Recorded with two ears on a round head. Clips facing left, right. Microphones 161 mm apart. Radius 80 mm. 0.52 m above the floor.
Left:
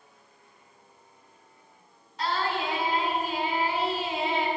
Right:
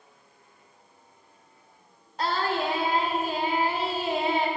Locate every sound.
2.2 s singing: 40° right (ahead or behind), 2 m